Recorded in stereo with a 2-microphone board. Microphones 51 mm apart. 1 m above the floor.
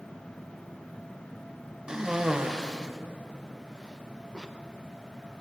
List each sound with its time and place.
1.9 s a cough: 15° right (ahead or behind), 0.9 m